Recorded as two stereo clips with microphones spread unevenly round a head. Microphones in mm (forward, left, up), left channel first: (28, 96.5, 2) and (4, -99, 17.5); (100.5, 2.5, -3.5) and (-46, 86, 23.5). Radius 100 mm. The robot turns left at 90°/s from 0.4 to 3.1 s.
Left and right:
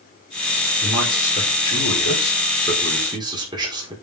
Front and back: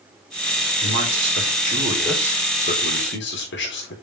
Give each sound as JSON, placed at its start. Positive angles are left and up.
{"t": 0.8, "sound": "a man speaking", "azimuth_deg": 180, "distance_m": 4.5}